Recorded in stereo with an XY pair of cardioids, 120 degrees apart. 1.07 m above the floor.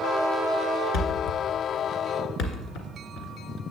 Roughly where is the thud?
Left.